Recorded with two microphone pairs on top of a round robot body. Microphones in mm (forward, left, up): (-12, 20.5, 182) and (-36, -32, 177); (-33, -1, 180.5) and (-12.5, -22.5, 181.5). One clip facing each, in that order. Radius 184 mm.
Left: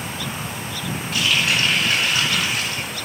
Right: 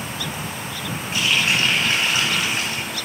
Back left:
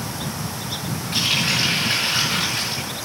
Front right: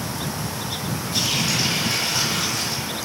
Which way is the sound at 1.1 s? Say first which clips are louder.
Even, back left 3 dB; straight behind.